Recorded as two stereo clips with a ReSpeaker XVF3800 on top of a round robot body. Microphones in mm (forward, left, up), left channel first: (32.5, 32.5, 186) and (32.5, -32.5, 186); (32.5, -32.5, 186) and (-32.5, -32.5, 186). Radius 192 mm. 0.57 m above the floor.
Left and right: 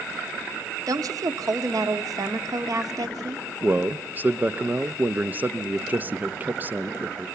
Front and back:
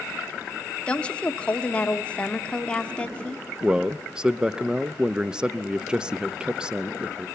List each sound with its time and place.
0.9 s a woman speaking: 70° right, 1.6 m
3.6 s a man speaking: 115° right, 0.8 m